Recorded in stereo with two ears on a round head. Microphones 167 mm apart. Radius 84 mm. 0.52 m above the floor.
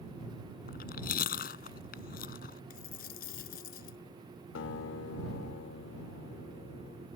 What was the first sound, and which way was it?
Chewing, 55° left (ahead or behind).